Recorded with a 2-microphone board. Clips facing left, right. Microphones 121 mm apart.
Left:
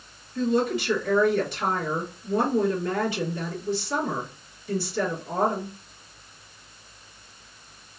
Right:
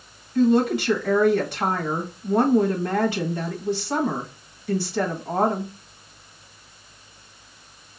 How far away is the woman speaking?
About 1.1 m.